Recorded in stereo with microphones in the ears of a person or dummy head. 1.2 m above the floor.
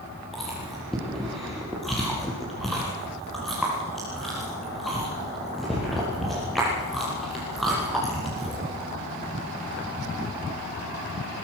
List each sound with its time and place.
0.3 s chewing: centre (ahead or behind), 6 m